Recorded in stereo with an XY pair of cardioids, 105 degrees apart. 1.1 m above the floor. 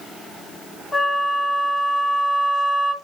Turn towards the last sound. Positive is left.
turn(degrees=20)